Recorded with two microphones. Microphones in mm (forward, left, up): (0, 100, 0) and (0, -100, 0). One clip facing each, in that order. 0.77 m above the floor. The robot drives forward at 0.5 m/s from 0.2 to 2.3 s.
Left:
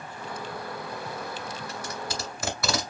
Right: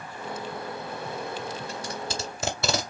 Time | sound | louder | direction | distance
1.7 | tape being pulled | right 1 dB | 30° right (ahead or behind) | 1.5 m